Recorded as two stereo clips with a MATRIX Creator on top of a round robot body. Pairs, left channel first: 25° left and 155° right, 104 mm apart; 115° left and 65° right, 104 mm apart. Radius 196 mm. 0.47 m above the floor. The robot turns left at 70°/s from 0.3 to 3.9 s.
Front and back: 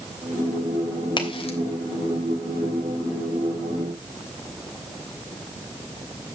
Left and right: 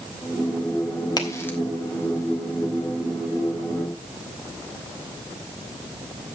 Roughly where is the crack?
Ahead left.